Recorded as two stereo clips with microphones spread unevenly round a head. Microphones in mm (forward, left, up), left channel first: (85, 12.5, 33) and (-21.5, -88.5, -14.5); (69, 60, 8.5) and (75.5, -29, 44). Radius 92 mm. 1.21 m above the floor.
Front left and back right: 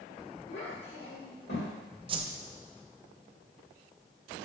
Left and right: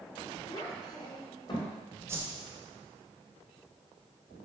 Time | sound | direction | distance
0.5 | a child speaking | 55° left | 2.5 m
2.1 | a whoosh | 165° right | 0.6 m